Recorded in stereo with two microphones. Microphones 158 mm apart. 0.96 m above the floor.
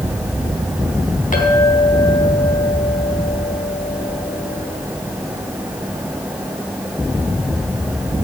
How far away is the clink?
About 4 m.